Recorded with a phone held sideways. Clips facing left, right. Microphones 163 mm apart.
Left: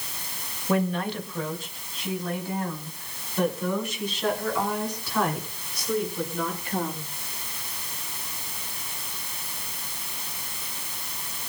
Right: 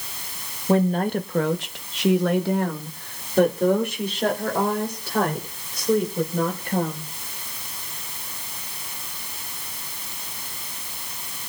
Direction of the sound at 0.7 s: 30° right (ahead or behind).